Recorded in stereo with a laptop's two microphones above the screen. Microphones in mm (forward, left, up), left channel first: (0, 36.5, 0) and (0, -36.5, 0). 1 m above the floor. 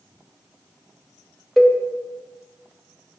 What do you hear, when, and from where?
1.6 s a cowbell: centre (ahead or behind), 0.5 m